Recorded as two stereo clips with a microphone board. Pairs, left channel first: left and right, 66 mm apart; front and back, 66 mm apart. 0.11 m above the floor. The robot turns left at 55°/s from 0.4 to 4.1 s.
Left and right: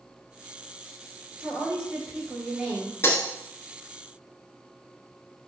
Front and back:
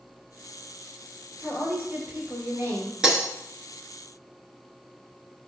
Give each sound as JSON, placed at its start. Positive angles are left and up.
{"t": 1.4, "sound": "a woman speaking", "azimuth_deg": -125, "distance_m": 1.6}
{"t": 3.0, "sound": "breaking glass", "azimuth_deg": 105, "distance_m": 1.0}